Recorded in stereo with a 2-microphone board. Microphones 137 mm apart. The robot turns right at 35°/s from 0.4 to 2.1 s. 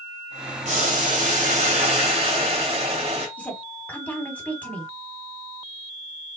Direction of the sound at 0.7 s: 105° right.